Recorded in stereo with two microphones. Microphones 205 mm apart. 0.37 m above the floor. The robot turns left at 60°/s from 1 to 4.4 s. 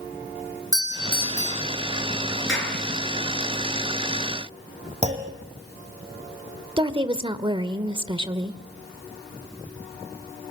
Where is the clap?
65° left (ahead or behind), 6 m; by 2.8 s 50° left (ahead or behind), 6 m.